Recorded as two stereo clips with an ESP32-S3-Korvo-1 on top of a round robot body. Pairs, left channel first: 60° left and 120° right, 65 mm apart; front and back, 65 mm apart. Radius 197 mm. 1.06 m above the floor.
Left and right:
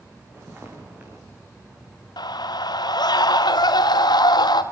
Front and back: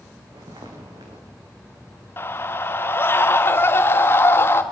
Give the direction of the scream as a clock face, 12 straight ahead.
10 o'clock.